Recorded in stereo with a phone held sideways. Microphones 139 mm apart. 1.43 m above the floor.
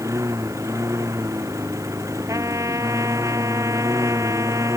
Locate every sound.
0.0 s a lawn mower: 20° right (ahead or behind)
2.3 s a trumpet: 20° right (ahead or behind)